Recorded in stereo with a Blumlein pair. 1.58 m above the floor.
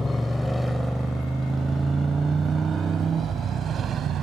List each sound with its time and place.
0.0 s a motorcycle: 5° left; by 4.2 s 25° right